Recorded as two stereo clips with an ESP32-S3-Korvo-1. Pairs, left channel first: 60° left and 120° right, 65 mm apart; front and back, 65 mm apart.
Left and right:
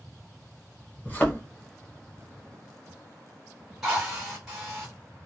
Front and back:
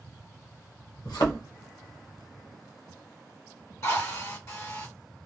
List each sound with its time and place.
1.1 s a thud: 5° right, 1.0 m
3.8 s a drill: 40° right, 1.9 m